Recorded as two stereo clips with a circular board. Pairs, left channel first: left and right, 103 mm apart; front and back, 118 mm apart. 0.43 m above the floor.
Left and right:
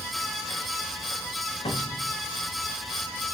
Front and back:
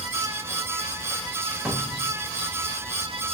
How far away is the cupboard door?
About 0.8 m.